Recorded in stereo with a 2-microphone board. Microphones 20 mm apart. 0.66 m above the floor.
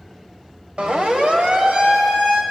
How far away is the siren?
About 2.5 m.